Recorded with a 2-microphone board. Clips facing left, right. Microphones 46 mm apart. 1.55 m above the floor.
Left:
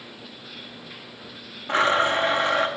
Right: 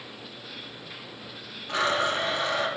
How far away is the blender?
About 0.7 m.